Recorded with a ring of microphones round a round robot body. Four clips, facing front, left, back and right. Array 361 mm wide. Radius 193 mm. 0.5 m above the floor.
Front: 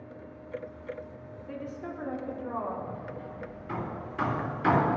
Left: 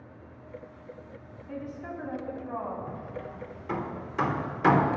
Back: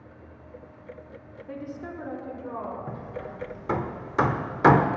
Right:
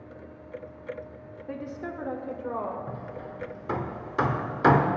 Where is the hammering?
160° right, 0.9 m.